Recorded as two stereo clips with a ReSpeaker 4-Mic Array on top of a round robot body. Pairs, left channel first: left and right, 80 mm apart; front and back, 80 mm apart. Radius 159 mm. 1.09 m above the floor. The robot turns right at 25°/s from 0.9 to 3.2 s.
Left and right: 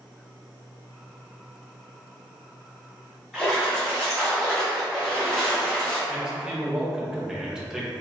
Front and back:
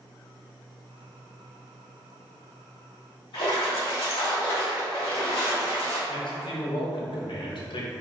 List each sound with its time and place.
3.3 s a splash: 10° left, 1.2 m
6.1 s a man speaking: 5° right, 0.7 m